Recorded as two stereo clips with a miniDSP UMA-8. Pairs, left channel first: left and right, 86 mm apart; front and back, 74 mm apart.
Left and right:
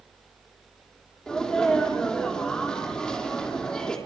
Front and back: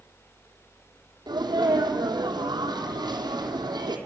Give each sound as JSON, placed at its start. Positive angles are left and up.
{"t": 1.3, "sound": "a sneeze", "azimuth_deg": 170, "distance_m": 3.5}